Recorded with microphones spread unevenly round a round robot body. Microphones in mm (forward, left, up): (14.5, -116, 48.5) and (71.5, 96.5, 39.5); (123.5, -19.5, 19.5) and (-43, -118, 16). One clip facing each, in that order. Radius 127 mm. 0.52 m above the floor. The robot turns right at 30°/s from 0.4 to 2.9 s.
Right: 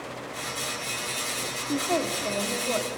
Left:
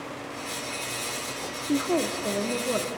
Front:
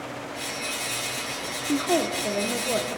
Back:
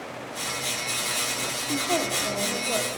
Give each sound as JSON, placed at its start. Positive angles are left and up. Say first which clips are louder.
{"t": 1.7, "sound": "a woman speaking", "louder": "left 3 dB, front 4 dB", "azimuth_deg": 45, "distance_m": 1.0}